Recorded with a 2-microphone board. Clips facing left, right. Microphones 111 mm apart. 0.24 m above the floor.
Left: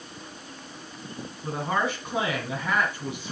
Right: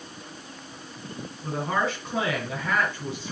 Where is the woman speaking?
10° left (ahead or behind), 2.5 m.